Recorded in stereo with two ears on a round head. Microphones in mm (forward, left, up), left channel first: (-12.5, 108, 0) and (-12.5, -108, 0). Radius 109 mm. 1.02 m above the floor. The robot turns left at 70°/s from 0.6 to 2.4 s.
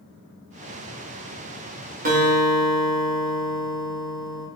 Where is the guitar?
35° right (ahead or behind), 0.9 m; by 4.5 s 50° right (ahead or behind), 0.9 m.